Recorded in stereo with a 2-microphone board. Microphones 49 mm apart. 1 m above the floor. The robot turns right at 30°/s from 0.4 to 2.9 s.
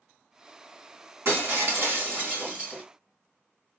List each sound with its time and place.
1.2 s breaking glass: 75° right, 1.8 m; by 2.8 s 30° right, 1.8 m